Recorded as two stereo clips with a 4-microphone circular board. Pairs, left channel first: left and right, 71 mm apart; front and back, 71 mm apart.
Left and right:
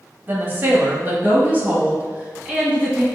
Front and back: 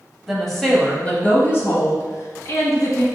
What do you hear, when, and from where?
0.3 s a woman speaking: 95° right, 1.0 m; by 3.0 s 20° right, 1.9 m